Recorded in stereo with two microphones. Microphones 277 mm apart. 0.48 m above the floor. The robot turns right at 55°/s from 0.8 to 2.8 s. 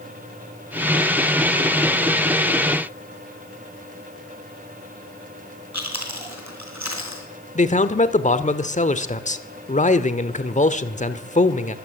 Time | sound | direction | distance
5.7 | chewing | 75° right (ahead or behind) | 4 m
7.5 | a man speaking | 25° left (ahead or behind) | 1.4 m